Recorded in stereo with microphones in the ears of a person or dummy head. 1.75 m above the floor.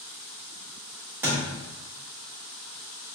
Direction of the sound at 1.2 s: 10° right (ahead or behind).